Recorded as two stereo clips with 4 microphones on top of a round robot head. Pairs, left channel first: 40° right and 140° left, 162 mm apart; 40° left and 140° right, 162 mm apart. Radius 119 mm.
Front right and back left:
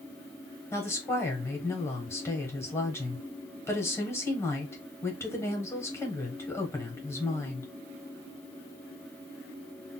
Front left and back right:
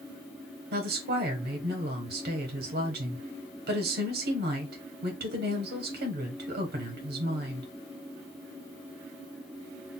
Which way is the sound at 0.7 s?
115° right.